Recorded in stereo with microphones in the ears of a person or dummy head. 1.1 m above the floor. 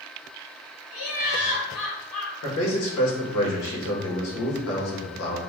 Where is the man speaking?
70° left (ahead or behind), 1.4 m.